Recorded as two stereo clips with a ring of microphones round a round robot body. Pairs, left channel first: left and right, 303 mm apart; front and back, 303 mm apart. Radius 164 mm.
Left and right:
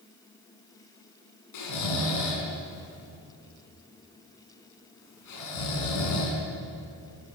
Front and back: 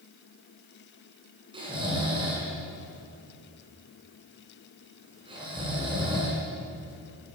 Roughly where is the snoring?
Left.